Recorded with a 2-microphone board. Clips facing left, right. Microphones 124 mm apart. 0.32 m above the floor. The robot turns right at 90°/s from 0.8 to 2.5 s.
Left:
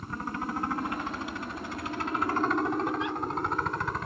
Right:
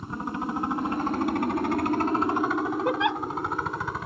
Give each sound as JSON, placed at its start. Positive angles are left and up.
{"t": 0.0, "sound": "a helicopter", "azimuth_deg": -160}
{"t": 2.9, "sound": "a giggle", "side_deg": -70}